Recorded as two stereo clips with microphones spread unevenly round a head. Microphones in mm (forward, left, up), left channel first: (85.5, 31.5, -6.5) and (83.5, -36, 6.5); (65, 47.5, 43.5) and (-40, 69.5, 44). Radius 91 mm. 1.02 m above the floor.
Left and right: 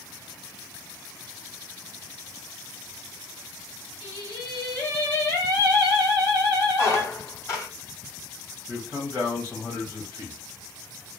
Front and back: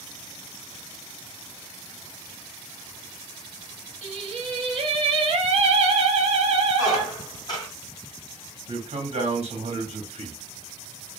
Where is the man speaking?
165° left, 1.3 m.